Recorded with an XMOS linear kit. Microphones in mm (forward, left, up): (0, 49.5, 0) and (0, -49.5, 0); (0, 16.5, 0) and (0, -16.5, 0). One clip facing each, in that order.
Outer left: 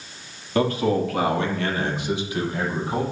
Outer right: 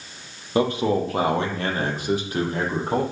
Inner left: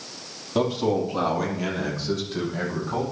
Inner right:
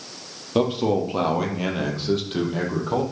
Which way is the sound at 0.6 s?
20° right (ahead or behind).